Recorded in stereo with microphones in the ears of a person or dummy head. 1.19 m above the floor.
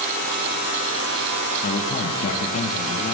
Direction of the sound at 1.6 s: 45° left (ahead or behind).